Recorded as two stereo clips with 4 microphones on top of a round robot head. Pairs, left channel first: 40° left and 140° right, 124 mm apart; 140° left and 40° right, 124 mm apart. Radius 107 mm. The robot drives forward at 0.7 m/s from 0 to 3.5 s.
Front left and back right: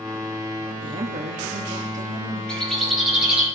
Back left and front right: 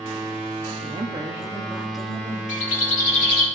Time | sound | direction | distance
0.8 | a woman speaking | 90° right | 1.0 m
2.5 | a bird | 125° left | 1.7 m